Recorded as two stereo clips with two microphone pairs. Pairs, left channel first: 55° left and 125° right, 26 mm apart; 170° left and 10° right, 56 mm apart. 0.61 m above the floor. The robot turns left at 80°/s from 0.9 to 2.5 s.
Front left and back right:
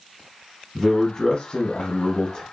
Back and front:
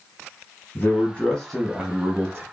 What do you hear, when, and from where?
0.8 s a man speaking: 135° left, 0.8 m; by 2.4 s 10° left, 0.8 m